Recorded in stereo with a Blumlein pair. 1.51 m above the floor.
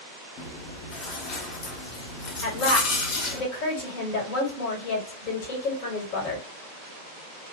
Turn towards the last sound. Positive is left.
turn(degrees=40)